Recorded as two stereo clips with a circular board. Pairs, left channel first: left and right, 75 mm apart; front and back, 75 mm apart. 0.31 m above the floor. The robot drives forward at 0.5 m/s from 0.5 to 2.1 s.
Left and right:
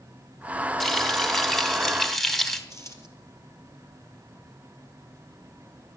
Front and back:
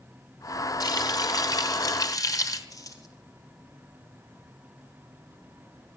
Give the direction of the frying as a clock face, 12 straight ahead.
12 o'clock.